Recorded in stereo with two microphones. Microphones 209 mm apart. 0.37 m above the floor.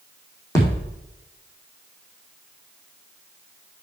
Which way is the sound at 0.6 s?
15° left (ahead or behind).